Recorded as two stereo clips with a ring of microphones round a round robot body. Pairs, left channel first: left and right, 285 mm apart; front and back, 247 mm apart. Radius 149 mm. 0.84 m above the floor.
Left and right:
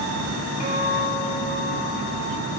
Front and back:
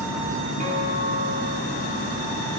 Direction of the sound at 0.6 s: 120° left.